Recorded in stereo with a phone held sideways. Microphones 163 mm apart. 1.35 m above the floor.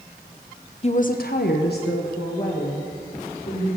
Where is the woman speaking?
40° left (ahead or behind), 0.7 m; by 3.7 s 65° left (ahead or behind), 3 m.